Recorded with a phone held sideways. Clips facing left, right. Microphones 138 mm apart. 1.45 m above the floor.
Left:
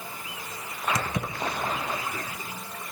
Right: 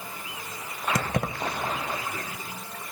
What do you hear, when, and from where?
0.9 s keys jangling: 60° right (ahead or behind), 0.9 m